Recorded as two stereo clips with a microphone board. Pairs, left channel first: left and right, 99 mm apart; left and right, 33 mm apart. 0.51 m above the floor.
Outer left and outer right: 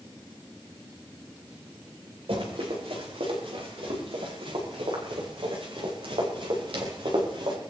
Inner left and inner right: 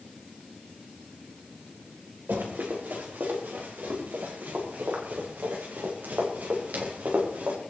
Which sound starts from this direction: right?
Running footsteps, at 2.3 s.